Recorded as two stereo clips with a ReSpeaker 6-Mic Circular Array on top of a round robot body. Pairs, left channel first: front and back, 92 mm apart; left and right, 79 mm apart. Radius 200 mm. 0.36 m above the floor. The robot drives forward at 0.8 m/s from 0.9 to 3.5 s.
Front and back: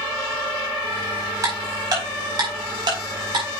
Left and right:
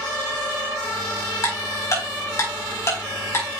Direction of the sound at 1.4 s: 130° left.